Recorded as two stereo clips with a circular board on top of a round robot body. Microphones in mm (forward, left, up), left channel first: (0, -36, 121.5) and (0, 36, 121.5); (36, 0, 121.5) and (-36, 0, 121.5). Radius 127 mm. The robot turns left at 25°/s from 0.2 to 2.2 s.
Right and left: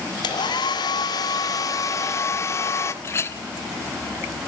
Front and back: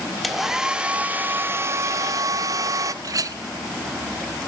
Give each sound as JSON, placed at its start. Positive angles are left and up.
{"t": 0.2, "sound": "a hair dryer", "azimuth_deg": -90, "distance_m": 2.0}
{"t": 3.0, "sound": "a clink", "azimuth_deg": -140, "distance_m": 1.5}